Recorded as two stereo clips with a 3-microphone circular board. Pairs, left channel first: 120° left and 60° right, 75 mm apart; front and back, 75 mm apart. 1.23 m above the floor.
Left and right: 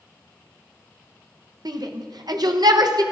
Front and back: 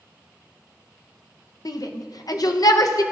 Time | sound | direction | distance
1.6 | a shout | 35° right | 1.0 m